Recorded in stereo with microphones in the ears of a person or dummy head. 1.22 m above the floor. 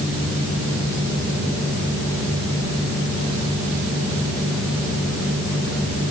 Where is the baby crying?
No baby crying in this recording.